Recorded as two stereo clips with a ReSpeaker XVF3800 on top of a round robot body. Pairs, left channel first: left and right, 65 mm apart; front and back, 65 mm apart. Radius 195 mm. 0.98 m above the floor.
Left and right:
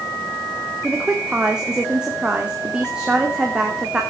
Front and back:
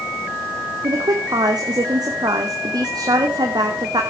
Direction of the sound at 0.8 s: 170° right.